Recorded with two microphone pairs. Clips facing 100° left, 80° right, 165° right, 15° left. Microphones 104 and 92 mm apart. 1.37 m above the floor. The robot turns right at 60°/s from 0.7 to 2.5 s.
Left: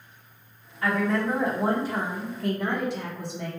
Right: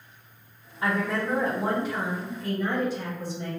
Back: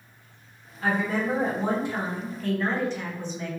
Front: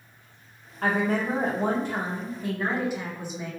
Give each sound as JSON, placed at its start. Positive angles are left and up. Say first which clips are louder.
{"t": 0.8, "sound": "a woman speaking", "louder": "left 2 dB, front 1 dB", "azimuth_deg": -5, "distance_m": 0.9}